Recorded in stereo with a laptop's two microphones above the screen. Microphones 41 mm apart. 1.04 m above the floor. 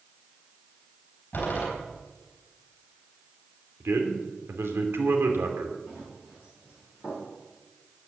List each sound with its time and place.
1.3 s a door slam: 50° left (ahead or behind), 4 m
3.8 s a man speaking: 75° right (ahead or behind), 2.5 m
5.9 s running footsteps: 30° right (ahead or behind), 6.5 m; by 7.3 s 20° right (ahead or behind), 7 m